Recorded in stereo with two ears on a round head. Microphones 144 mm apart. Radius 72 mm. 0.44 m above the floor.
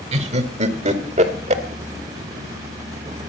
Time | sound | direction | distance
0.1 | laughter | 40° right (ahead or behind) | 1.2 m